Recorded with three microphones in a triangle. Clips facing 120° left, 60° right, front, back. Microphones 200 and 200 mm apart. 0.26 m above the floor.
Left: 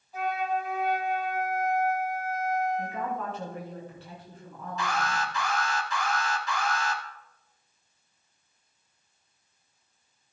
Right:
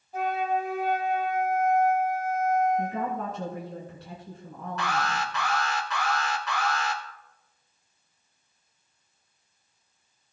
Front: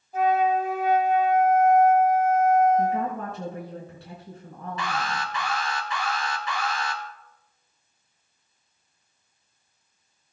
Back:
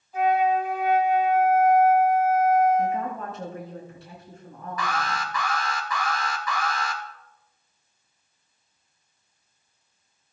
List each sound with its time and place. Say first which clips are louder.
0.1 s a flute: right 2 dB, even; 30° right, 2.5 m
2.8 s a woman speaking: right 3 dB, front 1 dB; 15° right, 3.5 m
4.8 s an alarm: right 1 dB, back 1 dB; 60° right, 2.5 m